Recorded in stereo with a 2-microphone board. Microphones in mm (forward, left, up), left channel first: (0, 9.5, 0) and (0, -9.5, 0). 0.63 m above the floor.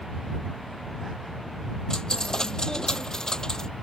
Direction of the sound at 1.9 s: 30° left (ahead or behind).